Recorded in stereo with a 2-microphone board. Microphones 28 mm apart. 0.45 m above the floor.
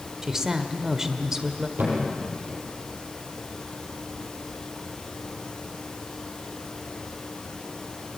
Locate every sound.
0.2 s a woman speaking: 15° right (ahead or behind), 1.6 m
1.8 s a thud: 75° right (ahead or behind), 7 m